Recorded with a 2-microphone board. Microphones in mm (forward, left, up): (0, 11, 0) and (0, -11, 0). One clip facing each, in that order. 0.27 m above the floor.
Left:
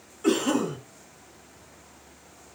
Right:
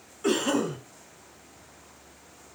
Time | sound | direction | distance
0.2 | a cough | 10° right (ahead or behind) | 1.0 m